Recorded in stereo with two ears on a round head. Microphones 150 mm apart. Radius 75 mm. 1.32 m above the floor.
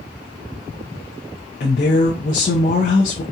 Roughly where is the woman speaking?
Left.